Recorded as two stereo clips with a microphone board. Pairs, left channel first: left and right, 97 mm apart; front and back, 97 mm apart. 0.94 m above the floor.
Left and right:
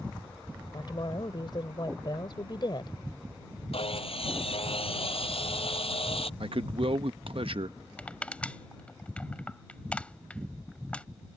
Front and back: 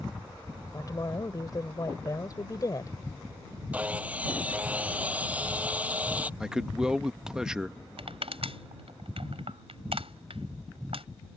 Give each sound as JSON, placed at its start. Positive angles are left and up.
{"t": 0.7, "sound": "a woman speaking", "azimuth_deg": 50}
{"t": 3.7, "sound": "sawing", "azimuth_deg": 105}
{"t": 6.4, "sound": "a man speaking", "azimuth_deg": -100}
{"t": 8.0, "sound": "crushing", "azimuth_deg": 165}